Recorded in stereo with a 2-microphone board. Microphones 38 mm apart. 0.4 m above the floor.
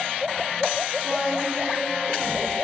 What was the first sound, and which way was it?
A woman speaking, 40° right (ahead or behind).